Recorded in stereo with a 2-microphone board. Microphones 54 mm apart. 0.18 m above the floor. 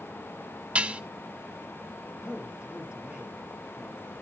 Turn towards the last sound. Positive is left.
turn(degrees=-15)  # may be behind; listen again after turning